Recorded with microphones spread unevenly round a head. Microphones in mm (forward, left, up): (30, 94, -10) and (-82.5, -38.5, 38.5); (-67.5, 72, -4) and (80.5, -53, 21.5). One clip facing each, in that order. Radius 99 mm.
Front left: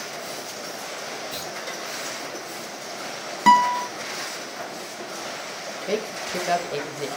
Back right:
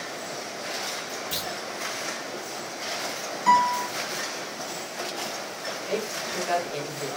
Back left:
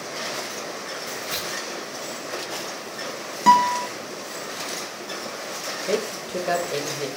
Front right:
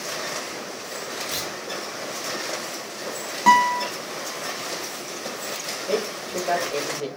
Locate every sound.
1.3 s a clunk: 140° right, 2.5 m
3.5 s a guitar: 65° left, 1.1 m
5.9 s a man speaking: 75° left, 1.5 m